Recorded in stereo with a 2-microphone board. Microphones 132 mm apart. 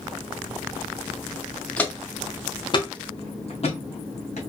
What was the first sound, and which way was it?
Footsteps, 10° left (ahead or behind).